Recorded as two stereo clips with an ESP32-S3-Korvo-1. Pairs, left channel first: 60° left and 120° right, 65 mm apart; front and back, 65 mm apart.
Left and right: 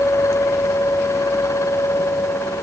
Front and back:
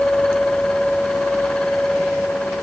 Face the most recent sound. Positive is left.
No sound to turn to.